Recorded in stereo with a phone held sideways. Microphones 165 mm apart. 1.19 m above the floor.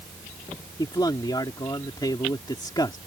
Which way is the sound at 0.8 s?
25° left (ahead or behind).